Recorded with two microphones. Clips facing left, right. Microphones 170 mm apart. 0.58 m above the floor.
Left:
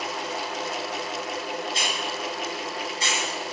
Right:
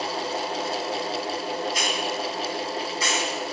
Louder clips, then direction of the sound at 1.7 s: Right 3 dB; 30° left (ahead or behind).